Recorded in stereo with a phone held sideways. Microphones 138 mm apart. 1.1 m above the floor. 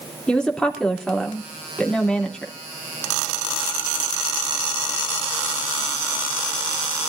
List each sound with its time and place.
0.3 s a woman speaking: 5° left (ahead or behind), 3 m